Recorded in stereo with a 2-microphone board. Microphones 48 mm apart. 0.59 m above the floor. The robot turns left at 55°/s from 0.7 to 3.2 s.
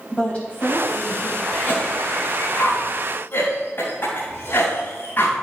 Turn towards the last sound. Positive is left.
turn(degrees=50)  # may be behind; listen again after turning